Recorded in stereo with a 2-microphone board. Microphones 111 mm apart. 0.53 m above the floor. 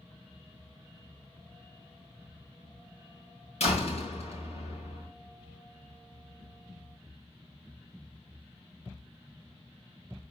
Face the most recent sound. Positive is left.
turn(degrees=75)  # may be behind; listen again after turning